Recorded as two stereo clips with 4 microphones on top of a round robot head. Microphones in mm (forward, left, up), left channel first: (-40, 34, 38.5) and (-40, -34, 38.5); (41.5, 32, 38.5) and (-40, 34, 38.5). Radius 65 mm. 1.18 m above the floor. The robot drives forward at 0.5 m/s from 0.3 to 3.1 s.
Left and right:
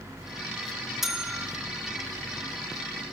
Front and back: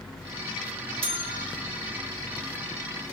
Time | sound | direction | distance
1.0 | a bell | 175° right | 3 m